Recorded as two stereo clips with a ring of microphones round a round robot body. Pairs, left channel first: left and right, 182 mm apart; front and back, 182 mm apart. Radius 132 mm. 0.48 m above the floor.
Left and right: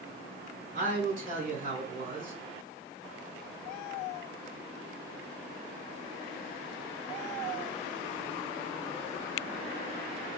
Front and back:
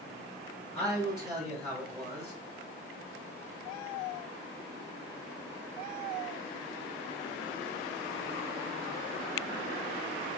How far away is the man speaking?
About 2.5 m.